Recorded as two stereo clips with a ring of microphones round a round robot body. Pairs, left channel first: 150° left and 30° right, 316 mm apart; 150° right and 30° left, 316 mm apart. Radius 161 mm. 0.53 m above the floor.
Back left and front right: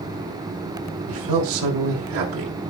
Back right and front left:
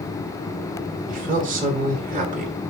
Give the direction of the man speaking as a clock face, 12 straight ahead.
1 o'clock.